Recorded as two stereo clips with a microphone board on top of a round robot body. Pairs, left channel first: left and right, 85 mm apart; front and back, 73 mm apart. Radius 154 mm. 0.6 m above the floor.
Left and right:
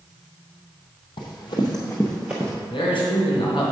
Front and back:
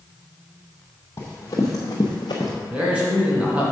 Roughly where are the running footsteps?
Ahead left.